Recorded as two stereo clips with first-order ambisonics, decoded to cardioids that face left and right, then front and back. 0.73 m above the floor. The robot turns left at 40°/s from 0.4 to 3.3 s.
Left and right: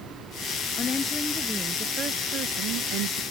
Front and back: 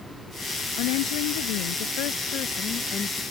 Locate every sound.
0.8 s a woman speaking: 25° left; by 3.2 s 75° right